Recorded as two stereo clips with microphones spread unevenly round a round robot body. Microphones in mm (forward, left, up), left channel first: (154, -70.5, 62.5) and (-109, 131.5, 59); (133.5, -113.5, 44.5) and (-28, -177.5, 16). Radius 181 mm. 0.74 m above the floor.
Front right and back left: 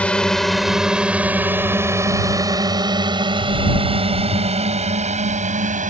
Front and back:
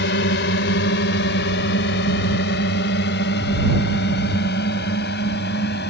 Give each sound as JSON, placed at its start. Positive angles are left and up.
{"t": 0.0, "sound": "a drone", "azimuth_deg": 50}